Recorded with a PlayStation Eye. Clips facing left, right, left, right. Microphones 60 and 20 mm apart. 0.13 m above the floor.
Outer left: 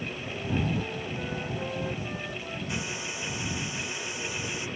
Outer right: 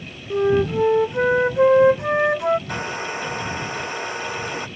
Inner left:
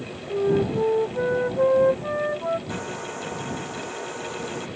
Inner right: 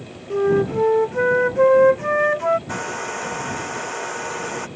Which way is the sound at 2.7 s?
50° right (ahead or behind).